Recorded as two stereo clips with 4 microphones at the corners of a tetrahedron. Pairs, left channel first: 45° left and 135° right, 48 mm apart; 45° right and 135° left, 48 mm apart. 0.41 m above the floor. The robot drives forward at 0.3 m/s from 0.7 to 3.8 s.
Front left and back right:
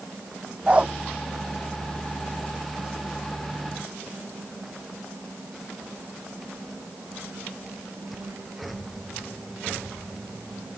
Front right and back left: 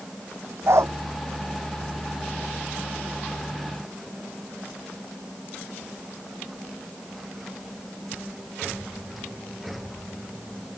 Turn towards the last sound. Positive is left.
turn(degrees=160)